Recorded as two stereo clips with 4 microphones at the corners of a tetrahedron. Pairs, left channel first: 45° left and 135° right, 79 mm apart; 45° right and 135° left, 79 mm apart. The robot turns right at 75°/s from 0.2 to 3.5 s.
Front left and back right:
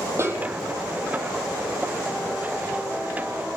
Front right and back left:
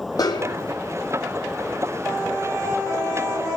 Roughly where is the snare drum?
Right.